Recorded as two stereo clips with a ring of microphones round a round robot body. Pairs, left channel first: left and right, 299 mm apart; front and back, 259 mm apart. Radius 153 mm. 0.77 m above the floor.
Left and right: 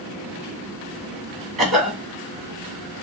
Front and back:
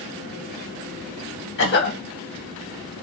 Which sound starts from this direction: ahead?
A cough, at 1.6 s.